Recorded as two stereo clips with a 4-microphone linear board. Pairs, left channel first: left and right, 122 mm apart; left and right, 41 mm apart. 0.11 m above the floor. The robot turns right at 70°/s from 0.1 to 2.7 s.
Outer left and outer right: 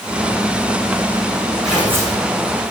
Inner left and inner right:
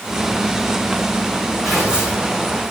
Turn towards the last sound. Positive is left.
turn(degrees=-105)